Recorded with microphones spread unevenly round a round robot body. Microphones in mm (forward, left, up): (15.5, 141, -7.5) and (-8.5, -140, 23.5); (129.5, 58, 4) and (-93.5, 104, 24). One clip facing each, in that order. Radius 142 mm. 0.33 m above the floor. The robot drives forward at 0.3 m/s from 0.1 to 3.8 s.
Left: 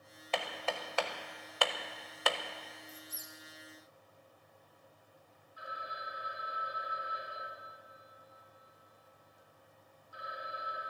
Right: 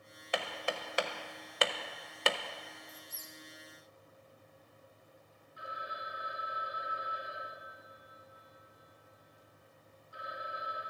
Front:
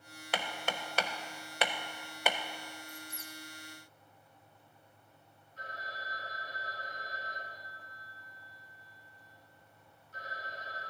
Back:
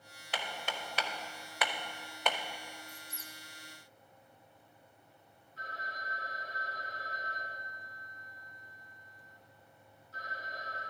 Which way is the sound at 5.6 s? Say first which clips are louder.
Right 2 dB, front 1 dB; 155° right.